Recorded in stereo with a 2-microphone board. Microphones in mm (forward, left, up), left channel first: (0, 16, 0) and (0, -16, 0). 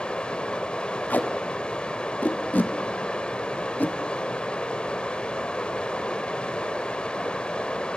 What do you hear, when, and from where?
0.0 s running water: 30° left (ahead or behind), 1.4 m
1.1 s tape being pulled: 65° left (ahead or behind), 1.5 m